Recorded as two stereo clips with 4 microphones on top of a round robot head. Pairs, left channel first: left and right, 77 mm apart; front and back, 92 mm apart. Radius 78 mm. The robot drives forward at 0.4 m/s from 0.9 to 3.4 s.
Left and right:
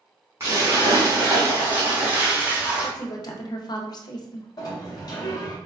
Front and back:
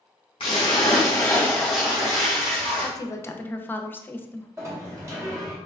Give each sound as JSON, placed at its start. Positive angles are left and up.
{"t": 0.4, "sound": "a splash", "azimuth_deg": -25, "distance_m": 0.6}
{"t": 2.8, "sound": "a woman speaking", "azimuth_deg": 45, "distance_m": 0.6}
{"t": 4.6, "sound": "a sliding door", "azimuth_deg": 125, "distance_m": 0.8}